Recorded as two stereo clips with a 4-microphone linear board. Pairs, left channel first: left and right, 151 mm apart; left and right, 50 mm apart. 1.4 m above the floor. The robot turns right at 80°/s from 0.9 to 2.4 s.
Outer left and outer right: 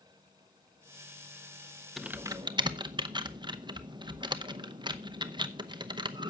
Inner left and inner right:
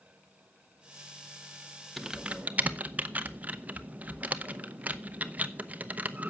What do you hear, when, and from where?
2.0 s typing on a keyboard: centre (ahead or behind), 0.8 m; by 6.3 s 30° right (ahead or behind), 0.8 m